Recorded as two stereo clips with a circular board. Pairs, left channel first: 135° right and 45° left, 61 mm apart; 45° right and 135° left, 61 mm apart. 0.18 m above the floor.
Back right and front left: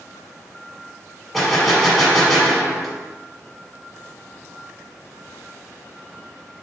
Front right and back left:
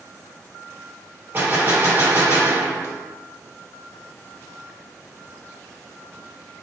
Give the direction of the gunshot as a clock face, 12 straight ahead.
7 o'clock.